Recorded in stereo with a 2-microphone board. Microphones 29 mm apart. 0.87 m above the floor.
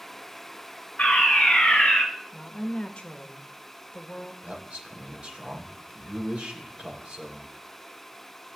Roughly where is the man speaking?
Right.